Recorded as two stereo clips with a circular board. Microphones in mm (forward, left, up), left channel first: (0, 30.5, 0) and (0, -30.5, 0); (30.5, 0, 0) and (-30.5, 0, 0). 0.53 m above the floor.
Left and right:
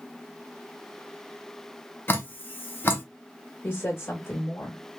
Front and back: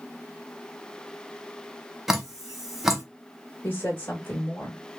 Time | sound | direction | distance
2.1 | dripping | 100° left | 0.8 m
3.6 | a woman speaking | 45° left | 1.3 m